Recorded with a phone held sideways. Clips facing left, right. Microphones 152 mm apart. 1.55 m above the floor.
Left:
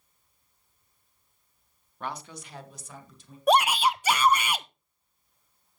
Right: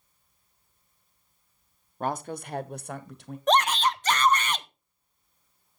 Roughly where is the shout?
Centre.